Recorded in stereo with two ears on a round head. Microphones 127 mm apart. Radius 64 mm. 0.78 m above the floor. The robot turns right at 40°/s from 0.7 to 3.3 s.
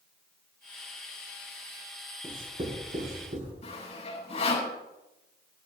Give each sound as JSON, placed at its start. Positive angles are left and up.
{"t": 2.2, "sound": "writing", "side_deg": -10, "distance_m": 6.0}
{"t": 3.6, "sound": "sawing", "side_deg": 45, "distance_m": 5.5}